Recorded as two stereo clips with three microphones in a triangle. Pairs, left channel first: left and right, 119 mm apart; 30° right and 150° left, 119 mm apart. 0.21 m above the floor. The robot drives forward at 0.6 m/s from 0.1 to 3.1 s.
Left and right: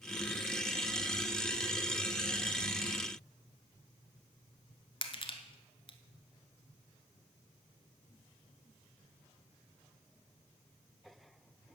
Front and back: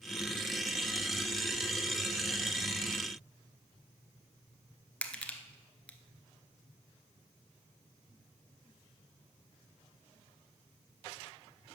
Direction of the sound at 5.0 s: 50° left.